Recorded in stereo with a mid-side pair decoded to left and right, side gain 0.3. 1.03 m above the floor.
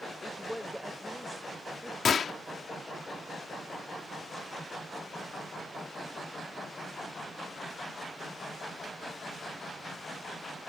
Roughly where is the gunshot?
Ahead left.